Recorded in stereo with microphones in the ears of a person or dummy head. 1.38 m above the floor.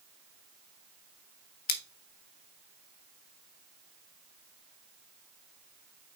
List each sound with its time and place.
1.7 s scissors: 45° left (ahead or behind), 1.0 m